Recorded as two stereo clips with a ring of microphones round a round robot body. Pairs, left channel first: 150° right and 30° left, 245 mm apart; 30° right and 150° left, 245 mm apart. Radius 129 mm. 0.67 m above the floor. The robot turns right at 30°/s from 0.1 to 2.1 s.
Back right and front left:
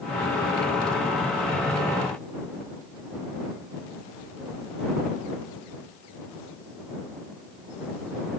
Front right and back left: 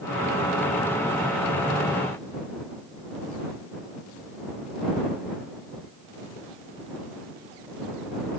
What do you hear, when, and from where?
Only background noise.